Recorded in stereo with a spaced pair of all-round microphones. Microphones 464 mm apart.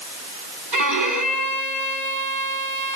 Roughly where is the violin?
Right.